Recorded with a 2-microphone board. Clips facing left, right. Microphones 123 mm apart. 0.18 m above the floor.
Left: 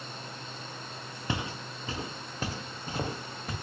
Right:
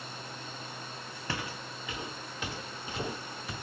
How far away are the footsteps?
About 1.0 m.